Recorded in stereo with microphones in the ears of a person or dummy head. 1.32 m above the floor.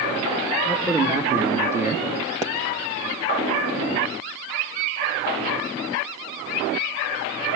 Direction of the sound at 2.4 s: 15° right (ahead or behind).